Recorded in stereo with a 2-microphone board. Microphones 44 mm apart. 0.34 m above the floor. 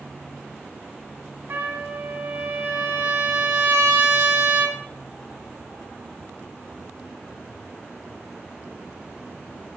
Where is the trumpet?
55° right (ahead or behind), 1.6 m.